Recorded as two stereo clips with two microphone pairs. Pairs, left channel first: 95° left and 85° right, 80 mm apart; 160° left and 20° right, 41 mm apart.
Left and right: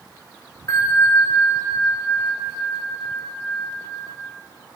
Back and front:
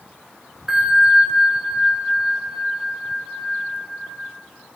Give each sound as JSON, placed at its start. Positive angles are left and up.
{"t": 0.7, "sound": "a bell", "azimuth_deg": 60, "distance_m": 0.9}